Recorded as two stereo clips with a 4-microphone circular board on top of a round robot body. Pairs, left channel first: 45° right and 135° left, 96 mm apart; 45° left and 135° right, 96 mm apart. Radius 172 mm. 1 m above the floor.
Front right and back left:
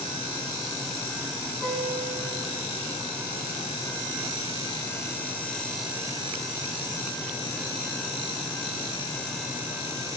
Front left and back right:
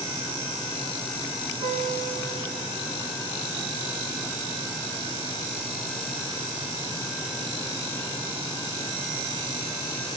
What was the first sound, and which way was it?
A guitar, 120° right.